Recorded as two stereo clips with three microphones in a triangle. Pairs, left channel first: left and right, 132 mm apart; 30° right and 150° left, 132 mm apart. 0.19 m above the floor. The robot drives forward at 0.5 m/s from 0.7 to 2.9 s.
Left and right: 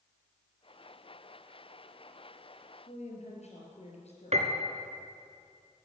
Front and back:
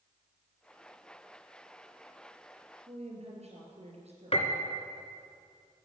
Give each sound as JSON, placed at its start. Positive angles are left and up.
{"t": 2.9, "sound": "a woman speaking", "azimuth_deg": 120, "distance_m": 4.0}
{"t": 4.3, "sound": "a piano", "azimuth_deg": -65, "distance_m": 1.4}